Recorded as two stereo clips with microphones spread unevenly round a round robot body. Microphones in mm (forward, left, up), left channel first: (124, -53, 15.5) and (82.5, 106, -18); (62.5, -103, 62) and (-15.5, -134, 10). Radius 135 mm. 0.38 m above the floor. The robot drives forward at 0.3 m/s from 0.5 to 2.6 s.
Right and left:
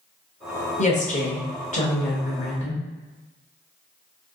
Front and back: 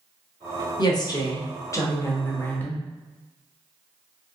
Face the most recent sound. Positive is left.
turn(degrees=-95)